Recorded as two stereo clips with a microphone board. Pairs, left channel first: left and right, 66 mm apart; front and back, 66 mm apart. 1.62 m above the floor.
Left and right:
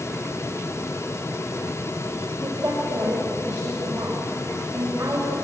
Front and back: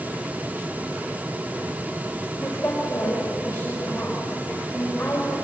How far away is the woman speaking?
About 6 m.